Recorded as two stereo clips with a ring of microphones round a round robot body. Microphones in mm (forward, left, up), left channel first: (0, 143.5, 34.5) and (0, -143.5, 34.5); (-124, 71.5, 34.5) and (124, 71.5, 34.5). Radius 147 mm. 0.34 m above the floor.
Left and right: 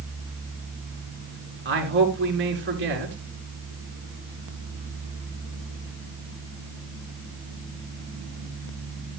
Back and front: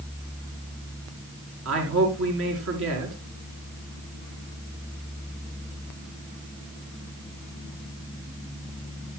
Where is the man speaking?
40° right, 4 m.